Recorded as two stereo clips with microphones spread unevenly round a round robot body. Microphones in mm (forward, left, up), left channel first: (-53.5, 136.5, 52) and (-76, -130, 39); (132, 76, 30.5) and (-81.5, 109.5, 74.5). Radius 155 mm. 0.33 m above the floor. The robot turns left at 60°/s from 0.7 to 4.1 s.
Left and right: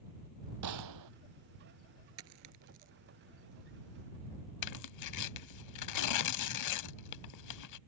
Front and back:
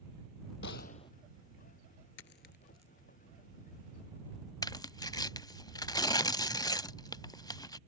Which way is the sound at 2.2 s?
50° right.